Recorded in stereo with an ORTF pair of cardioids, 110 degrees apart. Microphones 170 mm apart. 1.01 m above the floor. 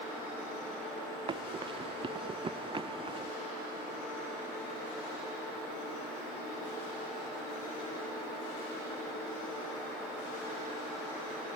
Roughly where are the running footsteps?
Ahead right.